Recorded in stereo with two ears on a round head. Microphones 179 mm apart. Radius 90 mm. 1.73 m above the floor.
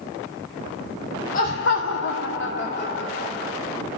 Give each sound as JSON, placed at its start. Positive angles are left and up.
{"t": 1.3, "sound": "laughter", "side_deg": 40, "distance_m": 1.4}